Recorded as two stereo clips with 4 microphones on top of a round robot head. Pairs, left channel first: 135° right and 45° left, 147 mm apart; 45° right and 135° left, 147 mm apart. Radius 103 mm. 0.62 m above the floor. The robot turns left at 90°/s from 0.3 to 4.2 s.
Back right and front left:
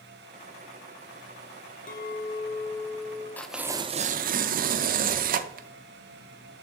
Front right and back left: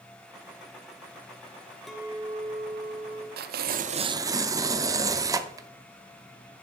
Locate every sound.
1.9 s a clink: 130° right, 1.2 m; by 3.3 s 105° left, 1.2 m
3.4 s tearing paper: 145° left, 0.5 m; by 5.7 s 70° left, 0.5 m